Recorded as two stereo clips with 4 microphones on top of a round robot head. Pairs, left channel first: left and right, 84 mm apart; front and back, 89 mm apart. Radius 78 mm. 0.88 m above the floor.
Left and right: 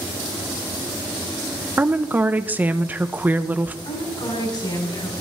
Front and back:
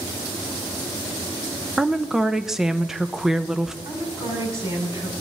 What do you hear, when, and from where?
1.8 s a woman speaking: 105° right, 0.7 m
3.9 s a woman speaking: 120° left, 8 m